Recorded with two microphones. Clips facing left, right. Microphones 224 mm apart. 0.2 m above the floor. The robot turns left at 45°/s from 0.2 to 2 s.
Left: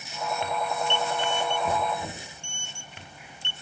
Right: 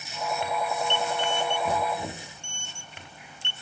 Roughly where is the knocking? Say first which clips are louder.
Even; centre.